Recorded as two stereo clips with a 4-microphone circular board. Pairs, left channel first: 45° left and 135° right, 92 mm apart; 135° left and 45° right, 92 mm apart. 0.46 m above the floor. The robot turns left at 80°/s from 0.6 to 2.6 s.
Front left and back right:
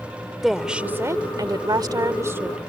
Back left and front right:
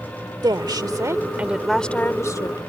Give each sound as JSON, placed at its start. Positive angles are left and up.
{"t": 0.4, "sound": "a woman speaking", "azimuth_deg": -50}